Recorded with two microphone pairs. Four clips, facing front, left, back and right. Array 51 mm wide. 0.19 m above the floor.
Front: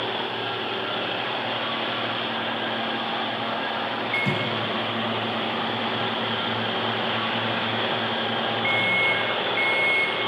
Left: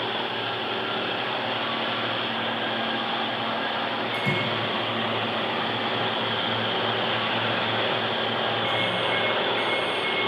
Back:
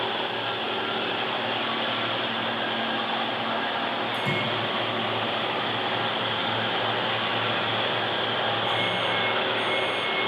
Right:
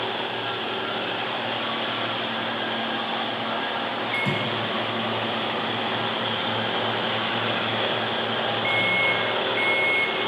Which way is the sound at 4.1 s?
25° right.